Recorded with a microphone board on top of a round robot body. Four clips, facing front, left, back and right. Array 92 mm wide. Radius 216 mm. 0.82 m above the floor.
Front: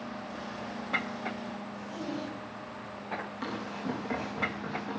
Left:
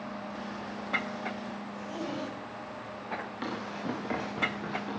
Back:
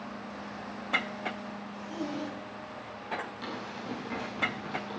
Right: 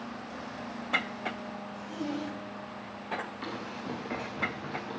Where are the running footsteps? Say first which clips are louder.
Left 2 dB, front 3 dB; 70° left, 6 m; by 5.0 s 65° left, 6.5 m.